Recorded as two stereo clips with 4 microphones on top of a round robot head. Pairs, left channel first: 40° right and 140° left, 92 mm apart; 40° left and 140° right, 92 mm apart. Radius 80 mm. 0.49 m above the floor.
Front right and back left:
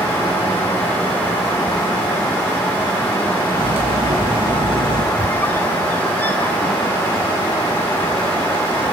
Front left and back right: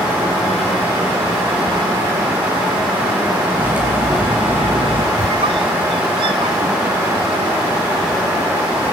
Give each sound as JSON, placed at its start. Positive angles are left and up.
{"t": 3.5, "sound": "cutlery clinking", "azimuth_deg": 150, "distance_m": 6.0}
{"t": 5.2, "sound": "a squeak", "azimuth_deg": -110, "distance_m": 1.1}